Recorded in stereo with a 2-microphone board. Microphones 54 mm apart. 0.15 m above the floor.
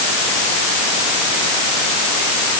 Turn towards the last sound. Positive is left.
No sound to turn to.